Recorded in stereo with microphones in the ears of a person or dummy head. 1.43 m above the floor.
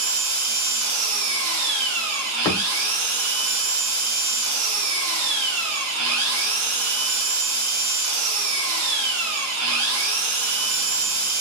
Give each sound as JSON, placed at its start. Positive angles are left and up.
{"t": 0.0, "sound": "an engine running", "side_deg": -80, "distance_m": 0.7}
{"t": 2.5, "sound": "a thud", "side_deg": 10, "distance_m": 1.1}